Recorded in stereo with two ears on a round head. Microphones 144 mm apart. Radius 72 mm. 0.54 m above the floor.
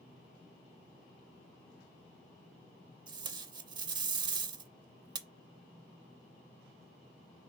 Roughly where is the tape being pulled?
Right.